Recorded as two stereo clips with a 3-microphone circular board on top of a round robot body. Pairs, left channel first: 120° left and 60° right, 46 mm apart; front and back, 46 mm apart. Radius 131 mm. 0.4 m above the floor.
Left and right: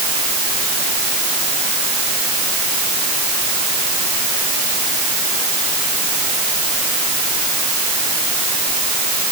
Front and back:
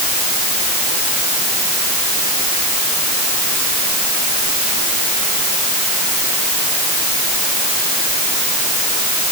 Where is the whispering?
No whispering in this recording.